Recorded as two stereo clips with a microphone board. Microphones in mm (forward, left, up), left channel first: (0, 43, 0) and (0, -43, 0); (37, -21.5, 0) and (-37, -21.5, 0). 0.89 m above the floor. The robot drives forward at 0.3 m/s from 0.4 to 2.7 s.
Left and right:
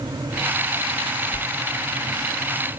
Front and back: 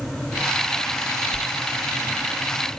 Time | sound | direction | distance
1.3 | a sliding door | 90° left | 1.1 m